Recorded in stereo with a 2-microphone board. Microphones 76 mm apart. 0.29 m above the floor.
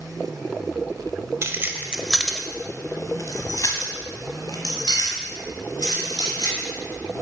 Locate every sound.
1.4 s keys jangling: 40° right (ahead or behind), 0.8 m; by 7.2 s 80° left, 3.5 m